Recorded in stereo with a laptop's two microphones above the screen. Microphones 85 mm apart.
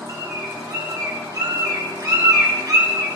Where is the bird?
50° right (ahead or behind), 2.5 m.